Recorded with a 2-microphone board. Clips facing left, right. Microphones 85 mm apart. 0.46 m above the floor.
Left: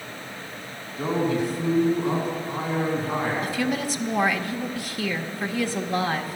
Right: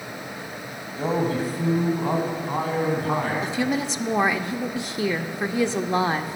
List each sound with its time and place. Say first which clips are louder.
1.0 s a man speaking: even; 35° right (ahead or behind), 3 m; by 3.3 s 60° right (ahead or behind), 4.5 m
3.4 s a woman speaking: right 1 dB; 20° right (ahead or behind), 0.8 m